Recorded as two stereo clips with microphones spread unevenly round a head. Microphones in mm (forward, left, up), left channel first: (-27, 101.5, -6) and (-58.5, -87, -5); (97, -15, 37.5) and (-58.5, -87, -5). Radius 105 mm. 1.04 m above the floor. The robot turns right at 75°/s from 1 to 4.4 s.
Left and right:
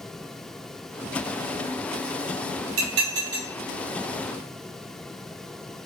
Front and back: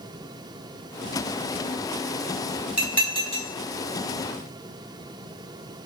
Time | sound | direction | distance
2.8 | dishes clattering | 70° right | 1.8 m